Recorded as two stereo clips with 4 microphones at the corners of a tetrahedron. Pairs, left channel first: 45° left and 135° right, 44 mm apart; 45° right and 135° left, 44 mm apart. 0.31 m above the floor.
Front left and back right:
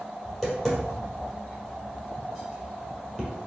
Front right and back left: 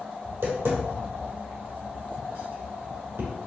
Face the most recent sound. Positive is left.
turn(degrees=125)